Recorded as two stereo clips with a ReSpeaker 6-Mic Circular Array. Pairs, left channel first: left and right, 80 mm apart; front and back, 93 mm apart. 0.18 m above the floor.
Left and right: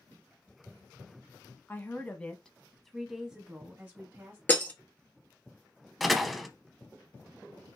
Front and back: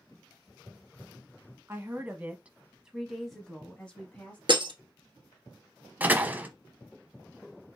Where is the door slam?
Straight behind, 0.7 m.